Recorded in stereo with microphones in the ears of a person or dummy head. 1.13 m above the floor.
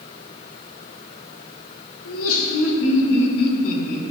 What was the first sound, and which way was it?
Laughter, 80° left.